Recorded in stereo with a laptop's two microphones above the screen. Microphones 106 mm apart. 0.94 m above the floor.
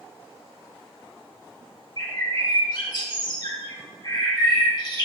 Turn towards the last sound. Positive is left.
turn(degrees=40)  # may be behind; listen again after turning